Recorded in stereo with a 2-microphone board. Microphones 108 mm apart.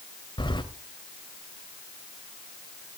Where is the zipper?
No zipper in this recording.